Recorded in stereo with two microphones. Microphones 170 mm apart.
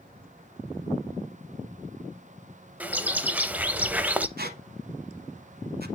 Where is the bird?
10° right (ahead or behind), 0.6 m.